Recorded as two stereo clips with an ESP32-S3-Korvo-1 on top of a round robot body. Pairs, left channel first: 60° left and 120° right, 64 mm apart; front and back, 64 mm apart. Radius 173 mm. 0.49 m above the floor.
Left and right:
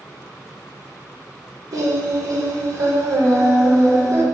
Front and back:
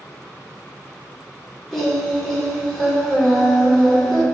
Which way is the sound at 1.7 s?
90° right.